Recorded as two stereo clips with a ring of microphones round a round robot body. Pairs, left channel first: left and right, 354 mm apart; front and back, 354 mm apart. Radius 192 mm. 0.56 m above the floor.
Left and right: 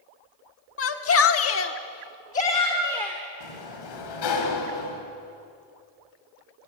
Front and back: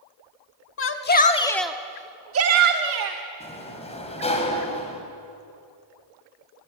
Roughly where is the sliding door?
Left.